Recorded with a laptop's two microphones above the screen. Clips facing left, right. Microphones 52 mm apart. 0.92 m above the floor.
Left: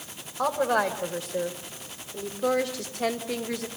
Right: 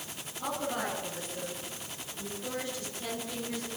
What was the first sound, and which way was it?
A woman speaking, 80° left.